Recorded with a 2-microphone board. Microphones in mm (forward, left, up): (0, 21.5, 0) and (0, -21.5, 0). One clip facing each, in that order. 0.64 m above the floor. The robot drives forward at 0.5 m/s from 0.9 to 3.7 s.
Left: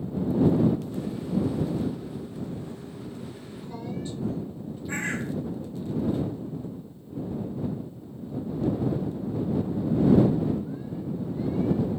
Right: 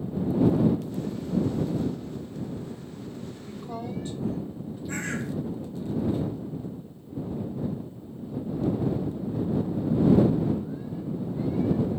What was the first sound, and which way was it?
A woman speaking, 50° right (ahead or behind).